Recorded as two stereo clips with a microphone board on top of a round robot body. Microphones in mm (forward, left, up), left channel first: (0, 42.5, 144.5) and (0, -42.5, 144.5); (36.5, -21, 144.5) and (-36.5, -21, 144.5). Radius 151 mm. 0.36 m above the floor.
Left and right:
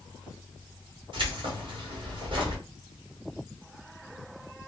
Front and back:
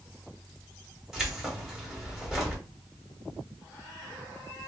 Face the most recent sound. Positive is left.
turn(degrees=-95)